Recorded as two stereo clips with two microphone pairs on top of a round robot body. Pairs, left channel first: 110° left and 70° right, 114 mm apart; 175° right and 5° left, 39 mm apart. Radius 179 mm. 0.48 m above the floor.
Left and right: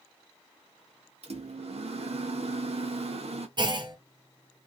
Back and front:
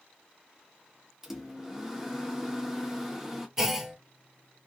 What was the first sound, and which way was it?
A microwave, 80° right.